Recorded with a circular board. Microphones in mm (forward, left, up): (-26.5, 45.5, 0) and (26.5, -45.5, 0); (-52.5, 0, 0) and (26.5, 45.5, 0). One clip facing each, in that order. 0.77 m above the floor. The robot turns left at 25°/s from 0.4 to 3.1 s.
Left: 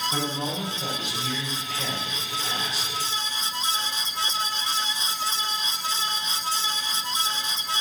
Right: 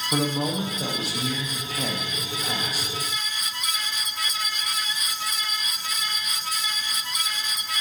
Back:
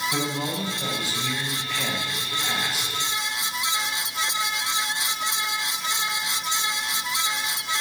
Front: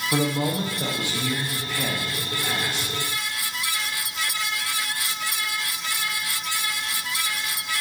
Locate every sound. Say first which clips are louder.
0.1 s a man speaking: right 4 dB, front 4 dB; 10° right, 0.8 m; by 2.9 s 75° right, 0.8 m